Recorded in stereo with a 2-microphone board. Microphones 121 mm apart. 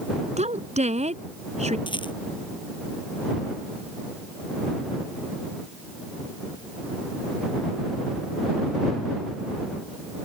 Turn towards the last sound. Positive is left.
turn(degrees=40)  # may be behind; listen again after turning